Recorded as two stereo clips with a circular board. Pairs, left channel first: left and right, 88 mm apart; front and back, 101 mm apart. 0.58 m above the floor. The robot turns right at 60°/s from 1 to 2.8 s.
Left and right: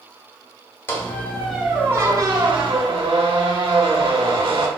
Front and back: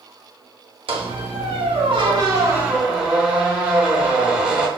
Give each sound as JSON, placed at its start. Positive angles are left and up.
{"t": 0.9, "sound": "a squeak", "azimuth_deg": 155, "distance_m": 1.0}